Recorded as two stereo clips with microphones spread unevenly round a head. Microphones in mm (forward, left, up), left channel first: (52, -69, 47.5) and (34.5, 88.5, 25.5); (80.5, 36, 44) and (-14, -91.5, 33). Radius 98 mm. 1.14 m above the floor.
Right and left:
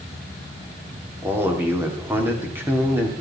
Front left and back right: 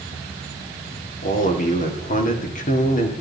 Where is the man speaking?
20° left, 2.5 m.